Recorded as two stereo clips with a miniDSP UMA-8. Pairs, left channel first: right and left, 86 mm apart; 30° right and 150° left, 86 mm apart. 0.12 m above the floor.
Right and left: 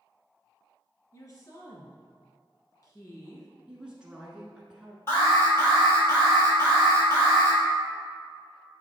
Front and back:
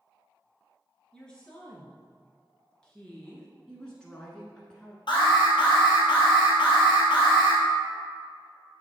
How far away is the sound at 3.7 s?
About 1.1 m.